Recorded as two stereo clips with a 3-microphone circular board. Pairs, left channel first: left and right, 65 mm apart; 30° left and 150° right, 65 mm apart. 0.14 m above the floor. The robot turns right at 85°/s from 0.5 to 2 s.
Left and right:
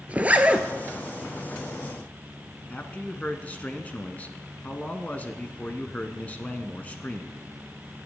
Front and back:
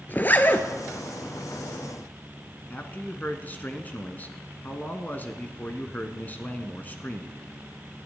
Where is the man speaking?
55° left, 1.1 m.